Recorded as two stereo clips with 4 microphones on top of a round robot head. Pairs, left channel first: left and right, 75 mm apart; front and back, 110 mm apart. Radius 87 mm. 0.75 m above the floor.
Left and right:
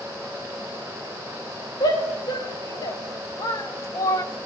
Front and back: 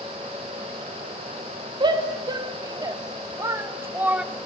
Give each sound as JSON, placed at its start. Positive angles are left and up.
{"t": 1.8, "sound": "a shout", "azimuth_deg": 135, "distance_m": 3.5}